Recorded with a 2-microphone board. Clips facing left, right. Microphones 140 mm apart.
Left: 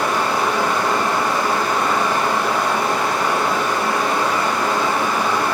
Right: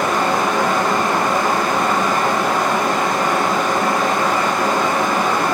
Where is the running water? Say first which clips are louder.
Right 2 dB; 45° right (ahead or behind), 6.5 m.